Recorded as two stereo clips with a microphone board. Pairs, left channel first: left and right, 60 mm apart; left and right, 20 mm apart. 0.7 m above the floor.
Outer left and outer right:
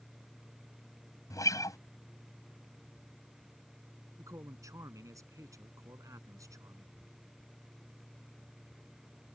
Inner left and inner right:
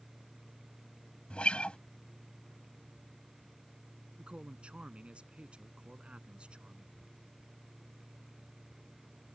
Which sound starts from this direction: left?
A guitar, at 1.3 s.